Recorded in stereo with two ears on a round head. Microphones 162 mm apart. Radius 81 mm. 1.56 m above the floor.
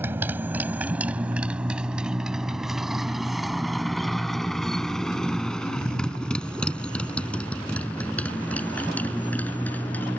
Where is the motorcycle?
15° right (ahead or behind); by 10.2 s 10° left (ahead or behind).